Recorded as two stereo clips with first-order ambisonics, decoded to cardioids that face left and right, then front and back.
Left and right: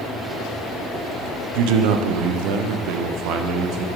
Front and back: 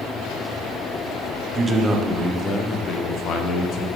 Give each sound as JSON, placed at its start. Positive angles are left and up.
{"t": 1.6, "sound": "a man speaking", "azimuth_deg": -105, "distance_m": 0.9}